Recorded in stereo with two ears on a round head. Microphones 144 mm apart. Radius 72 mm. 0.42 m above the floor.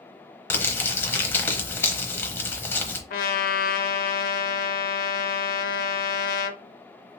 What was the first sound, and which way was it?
Crumpling, 15° left (ahead or behind).